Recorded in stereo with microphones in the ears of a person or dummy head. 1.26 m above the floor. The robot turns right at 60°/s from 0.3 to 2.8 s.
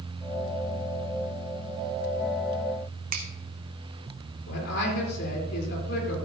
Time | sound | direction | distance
3.1 | a finger snap | 45° right (ahead or behind) | 1.2 m
4.5 | a man speaking | 60° left (ahead or behind) | 3.5 m